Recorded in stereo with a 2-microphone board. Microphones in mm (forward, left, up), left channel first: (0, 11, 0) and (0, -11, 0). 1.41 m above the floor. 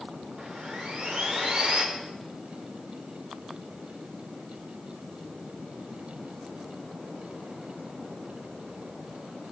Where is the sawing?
45° right (ahead or behind), 2 m.